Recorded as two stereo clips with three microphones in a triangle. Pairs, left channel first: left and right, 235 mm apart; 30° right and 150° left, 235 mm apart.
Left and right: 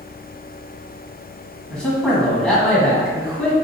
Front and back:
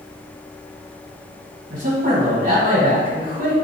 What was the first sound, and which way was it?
A man speaking, 175° left.